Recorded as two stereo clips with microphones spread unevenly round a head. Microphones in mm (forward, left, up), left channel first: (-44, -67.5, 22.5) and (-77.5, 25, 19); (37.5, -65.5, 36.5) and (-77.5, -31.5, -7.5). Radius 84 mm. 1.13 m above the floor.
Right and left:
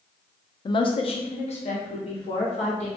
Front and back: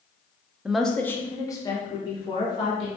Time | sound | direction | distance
0.7 | a woman speaking | 115° right | 0.5 m